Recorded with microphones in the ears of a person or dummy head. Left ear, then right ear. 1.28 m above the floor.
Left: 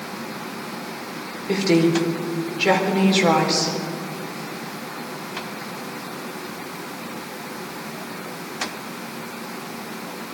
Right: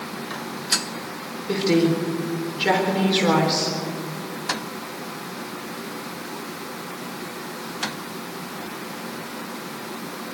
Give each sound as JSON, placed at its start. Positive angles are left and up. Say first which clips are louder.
{"t": 1.5, "sound": "a woman speaking", "louder": "left 2 dB", "side_deg": 10, "distance_m": 4.0}